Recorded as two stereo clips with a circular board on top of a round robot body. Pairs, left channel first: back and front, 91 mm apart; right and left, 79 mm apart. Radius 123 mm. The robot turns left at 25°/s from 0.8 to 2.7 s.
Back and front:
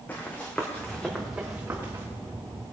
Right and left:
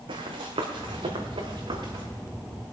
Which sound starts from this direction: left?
Running footsteps, at 0.1 s.